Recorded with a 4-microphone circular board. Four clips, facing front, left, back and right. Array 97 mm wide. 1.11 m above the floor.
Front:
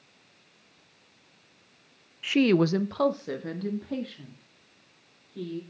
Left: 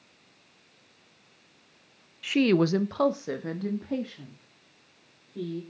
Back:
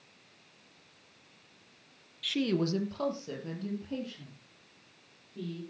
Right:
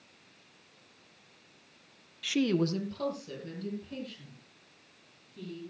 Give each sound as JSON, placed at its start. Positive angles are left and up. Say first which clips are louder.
{"t": 2.2, "sound": "a woman speaking", "louder": "left 6 dB, front 8 dB", "azimuth_deg": 10, "distance_m": 0.7}